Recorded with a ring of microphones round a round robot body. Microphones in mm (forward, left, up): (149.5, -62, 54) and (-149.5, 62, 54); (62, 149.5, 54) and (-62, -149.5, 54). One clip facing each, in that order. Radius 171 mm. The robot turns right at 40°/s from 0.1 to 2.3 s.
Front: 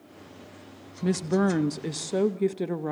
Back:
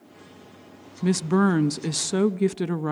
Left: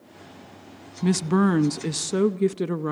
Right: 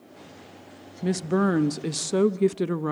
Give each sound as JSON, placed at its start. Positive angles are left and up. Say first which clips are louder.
{"t": 1.0, "sound": "a woman speaking", "louder": "back 3 dB, left 2 dB", "azimuth_deg": 105, "distance_m": 0.6}